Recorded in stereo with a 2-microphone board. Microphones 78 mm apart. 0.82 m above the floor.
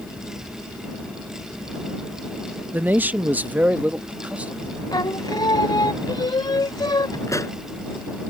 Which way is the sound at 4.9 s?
60° left (ahead or behind).